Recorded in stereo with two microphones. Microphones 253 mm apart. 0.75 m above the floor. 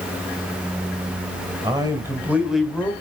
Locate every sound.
1.6 s a man speaking: 15° right (ahead or behind), 3 m; by 2.9 s 10° left (ahead or behind), 2 m